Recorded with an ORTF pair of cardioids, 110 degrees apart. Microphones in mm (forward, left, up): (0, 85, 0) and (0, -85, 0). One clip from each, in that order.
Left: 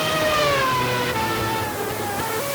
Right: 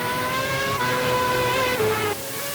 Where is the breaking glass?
I don't hear breaking glass.